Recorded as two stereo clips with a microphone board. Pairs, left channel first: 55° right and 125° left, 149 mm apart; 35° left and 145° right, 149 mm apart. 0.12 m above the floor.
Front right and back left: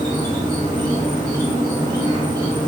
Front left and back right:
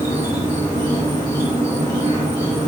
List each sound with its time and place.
0.0 s an insect: 85° left, 1.4 m